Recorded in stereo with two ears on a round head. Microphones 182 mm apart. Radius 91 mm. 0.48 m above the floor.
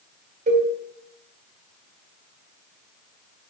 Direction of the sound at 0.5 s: 35° right (ahead or behind).